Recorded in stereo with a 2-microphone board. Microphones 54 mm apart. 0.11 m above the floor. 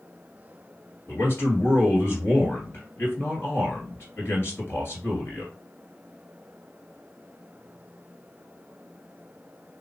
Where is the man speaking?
45° left (ahead or behind), 2.0 m.